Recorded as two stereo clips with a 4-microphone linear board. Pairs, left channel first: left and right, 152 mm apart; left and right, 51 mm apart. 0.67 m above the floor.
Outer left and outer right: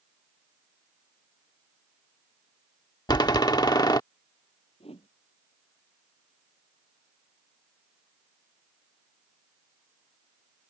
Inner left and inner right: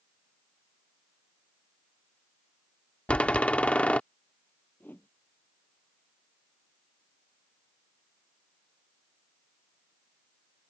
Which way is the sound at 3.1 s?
25° left (ahead or behind).